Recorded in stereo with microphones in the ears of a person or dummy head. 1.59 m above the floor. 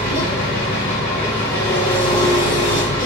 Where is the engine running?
30° left (ahead or behind), 1.4 m.